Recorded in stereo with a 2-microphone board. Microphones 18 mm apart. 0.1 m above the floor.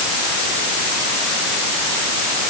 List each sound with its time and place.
Only background noise.